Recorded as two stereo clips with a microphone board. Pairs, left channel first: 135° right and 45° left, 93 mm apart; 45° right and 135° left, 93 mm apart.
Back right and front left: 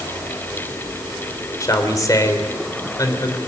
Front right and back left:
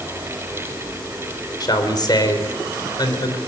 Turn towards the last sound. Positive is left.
turn(degrees=-85)